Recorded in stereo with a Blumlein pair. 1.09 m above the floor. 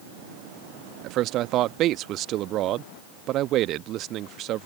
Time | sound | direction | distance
1.0 | a man speaking | 35° right | ?